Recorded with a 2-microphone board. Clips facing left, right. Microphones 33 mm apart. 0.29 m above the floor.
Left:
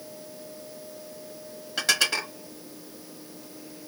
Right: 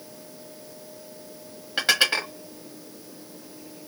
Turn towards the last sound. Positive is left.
turn(degrees=-25)  # may be behind; listen again after turning